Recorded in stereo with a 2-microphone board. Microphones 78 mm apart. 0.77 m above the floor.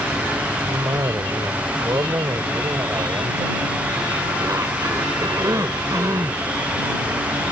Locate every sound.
0.7 s a cough: 50° right (ahead or behind)